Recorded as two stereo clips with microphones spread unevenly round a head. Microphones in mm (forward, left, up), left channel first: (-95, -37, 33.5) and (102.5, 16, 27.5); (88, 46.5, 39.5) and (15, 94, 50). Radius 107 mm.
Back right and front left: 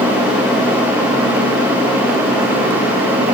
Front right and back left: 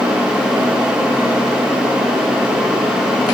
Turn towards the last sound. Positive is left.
No sound to turn to.